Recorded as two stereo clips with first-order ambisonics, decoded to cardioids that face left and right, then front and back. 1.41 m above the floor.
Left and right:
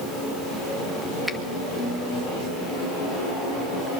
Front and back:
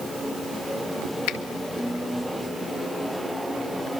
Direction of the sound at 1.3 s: Straight ahead.